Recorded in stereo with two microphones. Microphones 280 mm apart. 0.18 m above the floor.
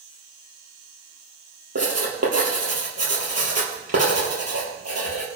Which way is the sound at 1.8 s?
60° right (ahead or behind).